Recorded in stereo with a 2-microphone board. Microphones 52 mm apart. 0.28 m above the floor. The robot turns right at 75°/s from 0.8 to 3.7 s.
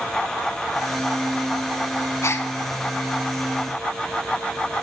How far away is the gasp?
About 0.9 m.